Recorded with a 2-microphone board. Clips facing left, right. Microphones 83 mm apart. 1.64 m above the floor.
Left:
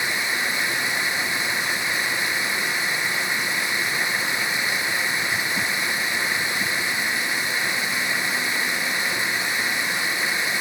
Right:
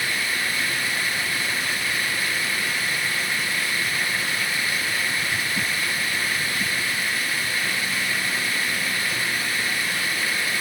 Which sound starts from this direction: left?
Running water, at 0.0 s.